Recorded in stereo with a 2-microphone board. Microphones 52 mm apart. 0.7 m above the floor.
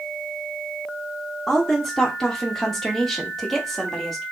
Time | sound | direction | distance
1.5 | a woman speaking | 5° left (ahead or behind) | 1.2 m